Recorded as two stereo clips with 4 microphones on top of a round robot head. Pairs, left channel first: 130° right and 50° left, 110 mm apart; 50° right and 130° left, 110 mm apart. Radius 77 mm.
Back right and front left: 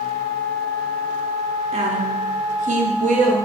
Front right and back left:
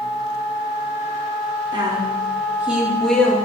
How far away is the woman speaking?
About 3 m.